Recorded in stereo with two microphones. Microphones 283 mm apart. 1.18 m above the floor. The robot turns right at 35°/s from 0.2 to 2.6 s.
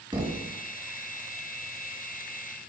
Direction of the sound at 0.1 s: 15° right (ahead or behind).